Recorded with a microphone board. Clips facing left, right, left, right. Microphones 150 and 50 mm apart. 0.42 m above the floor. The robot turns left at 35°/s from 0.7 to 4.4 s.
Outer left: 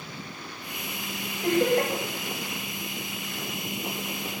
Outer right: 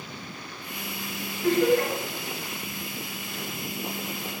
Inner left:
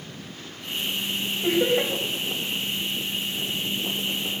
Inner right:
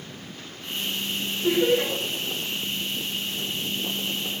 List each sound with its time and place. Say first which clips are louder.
1.4 s laughter: outer right 1 dB, inner right 1 dB; 60° left (ahead or behind), 1.8 m; by 1.9 s 45° left (ahead or behind), 1.8 m